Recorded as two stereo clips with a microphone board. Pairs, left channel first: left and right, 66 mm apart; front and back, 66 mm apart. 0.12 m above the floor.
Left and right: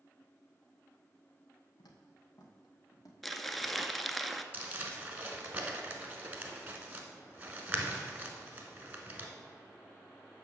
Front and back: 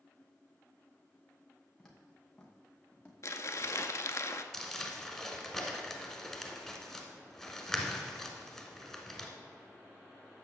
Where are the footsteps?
85° left, 2 m; by 3.1 s 70° left, 2.5 m.